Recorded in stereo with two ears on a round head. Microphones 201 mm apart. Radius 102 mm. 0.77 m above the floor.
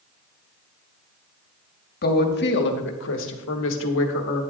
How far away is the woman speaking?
About 1.3 m.